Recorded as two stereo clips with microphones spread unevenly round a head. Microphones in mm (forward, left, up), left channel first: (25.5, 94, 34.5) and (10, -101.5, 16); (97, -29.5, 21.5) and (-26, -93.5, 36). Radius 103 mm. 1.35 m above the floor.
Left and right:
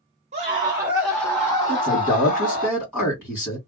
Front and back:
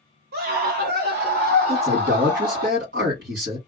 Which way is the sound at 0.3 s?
155° right.